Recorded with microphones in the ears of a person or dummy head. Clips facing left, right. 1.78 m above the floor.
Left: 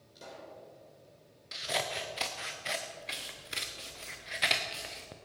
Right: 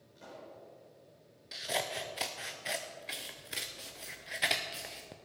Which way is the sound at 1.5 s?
5° right (ahead or behind).